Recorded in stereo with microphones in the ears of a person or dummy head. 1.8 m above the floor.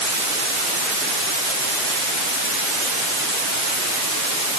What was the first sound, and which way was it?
Only background noise.